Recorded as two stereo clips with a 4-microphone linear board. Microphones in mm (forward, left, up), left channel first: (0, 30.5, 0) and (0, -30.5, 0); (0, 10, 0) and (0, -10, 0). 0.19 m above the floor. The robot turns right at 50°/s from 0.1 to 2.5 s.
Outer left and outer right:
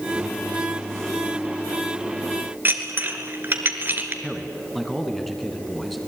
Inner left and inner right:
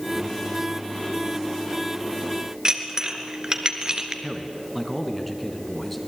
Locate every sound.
2.6 s dishes clattering: 35° right (ahead or behind), 2 m
4.2 s a man speaking: centre (ahead or behind), 2 m